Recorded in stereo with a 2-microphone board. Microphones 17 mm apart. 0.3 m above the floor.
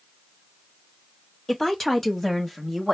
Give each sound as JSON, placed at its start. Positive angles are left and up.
{"t": 1.5, "sound": "a woman speaking", "side_deg": 15, "distance_m": 1.5}